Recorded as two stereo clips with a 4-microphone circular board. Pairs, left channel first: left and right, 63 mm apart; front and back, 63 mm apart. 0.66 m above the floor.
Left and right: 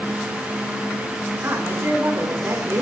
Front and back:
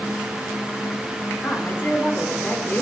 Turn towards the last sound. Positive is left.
turn(degrees=-50)